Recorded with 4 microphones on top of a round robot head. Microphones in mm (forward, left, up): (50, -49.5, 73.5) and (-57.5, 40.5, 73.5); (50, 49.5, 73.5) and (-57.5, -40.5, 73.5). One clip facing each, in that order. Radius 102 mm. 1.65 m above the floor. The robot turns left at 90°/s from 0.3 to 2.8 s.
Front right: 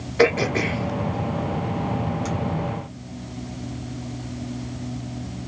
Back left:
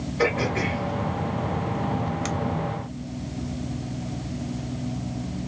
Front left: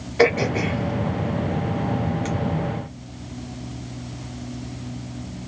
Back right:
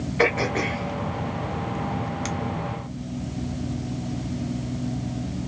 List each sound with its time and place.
0.2 s throat clearing: 15° right, 0.9 m; by 2.3 s 165° left, 0.9 m